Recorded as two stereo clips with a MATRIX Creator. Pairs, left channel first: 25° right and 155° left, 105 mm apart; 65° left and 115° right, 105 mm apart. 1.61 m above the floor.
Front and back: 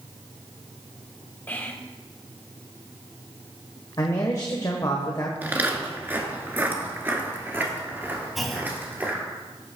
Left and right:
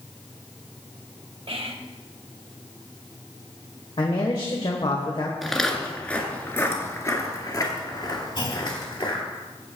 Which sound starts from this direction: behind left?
Footsteps, at 5.4 s.